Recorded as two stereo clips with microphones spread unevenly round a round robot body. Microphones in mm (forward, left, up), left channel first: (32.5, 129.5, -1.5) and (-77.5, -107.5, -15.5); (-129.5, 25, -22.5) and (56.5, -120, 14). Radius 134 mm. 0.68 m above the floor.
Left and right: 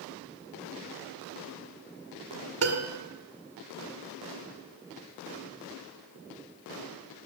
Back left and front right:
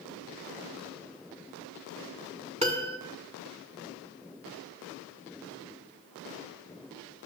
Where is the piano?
105° right, 1.9 m.